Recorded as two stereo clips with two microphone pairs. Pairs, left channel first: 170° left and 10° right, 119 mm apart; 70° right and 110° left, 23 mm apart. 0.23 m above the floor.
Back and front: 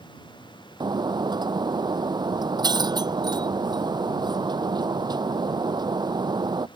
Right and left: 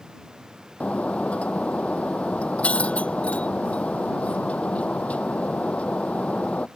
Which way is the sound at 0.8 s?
60° right.